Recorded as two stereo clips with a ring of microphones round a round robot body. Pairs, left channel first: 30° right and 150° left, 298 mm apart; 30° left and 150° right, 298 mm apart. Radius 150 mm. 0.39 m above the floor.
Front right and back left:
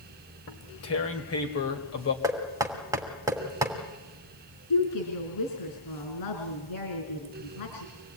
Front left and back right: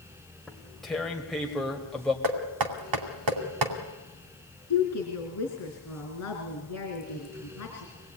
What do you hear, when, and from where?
0.5 s tearing paper: 60° right, 2 m
2.2 s knocking: 130° right, 2.5 m
4.7 s a woman speaking: 10° right, 4 m